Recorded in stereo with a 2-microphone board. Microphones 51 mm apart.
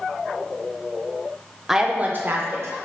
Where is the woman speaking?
5° right (ahead or behind), 0.5 m; by 2.8 s 60° right (ahead or behind), 0.9 m.